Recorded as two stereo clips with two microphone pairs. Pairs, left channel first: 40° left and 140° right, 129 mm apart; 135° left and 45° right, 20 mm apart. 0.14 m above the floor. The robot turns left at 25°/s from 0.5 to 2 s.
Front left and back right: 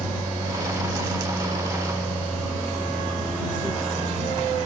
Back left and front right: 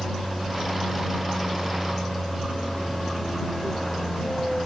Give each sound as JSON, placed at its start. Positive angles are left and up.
{"t": 0.0, "sound": "an aircraft", "azimuth_deg": 170}